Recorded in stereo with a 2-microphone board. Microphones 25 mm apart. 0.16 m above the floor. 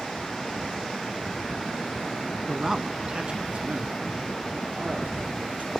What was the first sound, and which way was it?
A man speaking, 10° right (ahead or behind).